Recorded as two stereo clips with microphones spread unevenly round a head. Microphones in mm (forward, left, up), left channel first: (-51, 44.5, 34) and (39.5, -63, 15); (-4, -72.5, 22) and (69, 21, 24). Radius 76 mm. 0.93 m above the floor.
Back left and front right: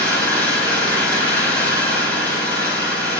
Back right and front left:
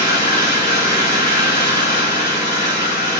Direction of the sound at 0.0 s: 150° right.